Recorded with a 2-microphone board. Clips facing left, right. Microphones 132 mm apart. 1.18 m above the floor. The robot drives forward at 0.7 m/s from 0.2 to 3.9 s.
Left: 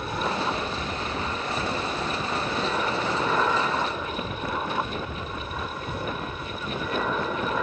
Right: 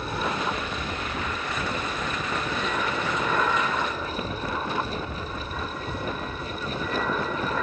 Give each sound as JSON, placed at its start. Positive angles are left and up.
{"t": 0.0, "sound": "an aircraft", "side_deg": 10}